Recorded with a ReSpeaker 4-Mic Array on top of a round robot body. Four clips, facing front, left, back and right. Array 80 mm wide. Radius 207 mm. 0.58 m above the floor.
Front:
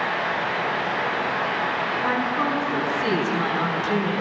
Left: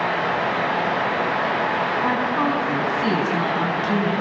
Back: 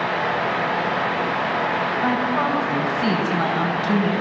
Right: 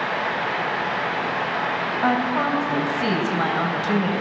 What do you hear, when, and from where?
2.0 s a woman speaking: 120° right, 4 m